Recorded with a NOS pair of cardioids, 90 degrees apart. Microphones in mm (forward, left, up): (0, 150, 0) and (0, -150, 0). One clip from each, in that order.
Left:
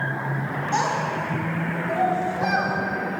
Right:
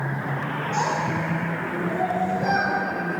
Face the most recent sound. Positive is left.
turn(degrees=65)